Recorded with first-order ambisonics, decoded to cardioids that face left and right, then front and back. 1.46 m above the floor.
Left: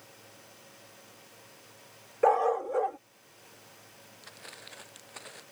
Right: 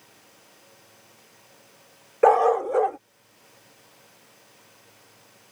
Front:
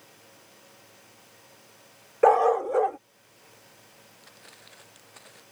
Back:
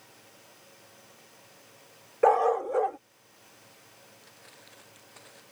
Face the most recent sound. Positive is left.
turn(degrees=85)